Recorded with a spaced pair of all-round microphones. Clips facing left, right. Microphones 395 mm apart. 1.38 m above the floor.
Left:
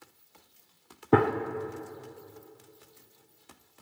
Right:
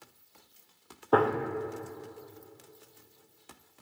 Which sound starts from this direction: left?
A gunshot, at 1.1 s.